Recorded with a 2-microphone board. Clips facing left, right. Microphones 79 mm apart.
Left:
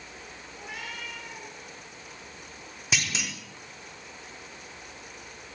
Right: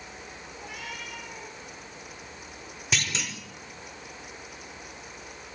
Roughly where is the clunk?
Centre.